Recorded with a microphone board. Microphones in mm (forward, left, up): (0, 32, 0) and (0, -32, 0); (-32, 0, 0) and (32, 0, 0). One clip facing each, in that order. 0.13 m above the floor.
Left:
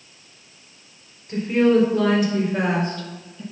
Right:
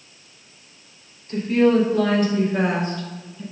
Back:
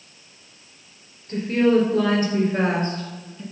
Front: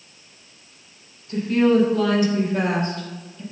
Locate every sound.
1.3 s a woman speaking: 155° left, 2.5 m; by 3.4 s 155° right, 1.7 m